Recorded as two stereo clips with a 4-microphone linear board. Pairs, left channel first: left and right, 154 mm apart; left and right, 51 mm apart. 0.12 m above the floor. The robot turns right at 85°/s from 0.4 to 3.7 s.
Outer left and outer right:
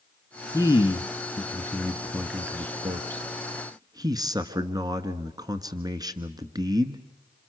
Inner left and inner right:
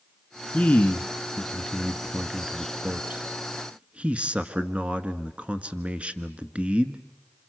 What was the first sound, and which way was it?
A man speaking, 40° left.